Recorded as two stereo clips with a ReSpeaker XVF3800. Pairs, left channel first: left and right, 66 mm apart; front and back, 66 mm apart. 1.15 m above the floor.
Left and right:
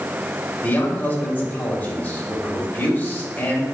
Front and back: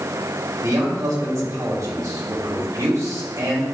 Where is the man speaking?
150° left, 2.5 m.